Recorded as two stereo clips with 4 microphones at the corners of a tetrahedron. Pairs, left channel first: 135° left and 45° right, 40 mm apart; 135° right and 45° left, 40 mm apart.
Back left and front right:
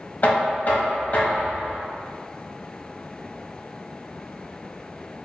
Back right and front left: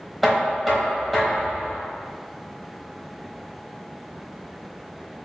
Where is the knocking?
135° left, 1.0 m.